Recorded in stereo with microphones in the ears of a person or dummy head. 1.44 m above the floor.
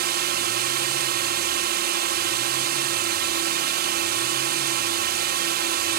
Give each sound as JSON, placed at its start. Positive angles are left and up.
{"t": 0.0, "sound": "a drone", "side_deg": -50}